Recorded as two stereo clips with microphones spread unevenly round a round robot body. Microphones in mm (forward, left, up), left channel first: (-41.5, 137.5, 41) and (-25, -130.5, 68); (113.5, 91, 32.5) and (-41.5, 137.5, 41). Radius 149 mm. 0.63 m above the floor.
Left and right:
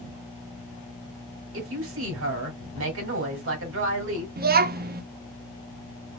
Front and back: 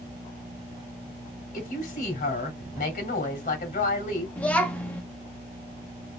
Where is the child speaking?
80° right, 0.7 m.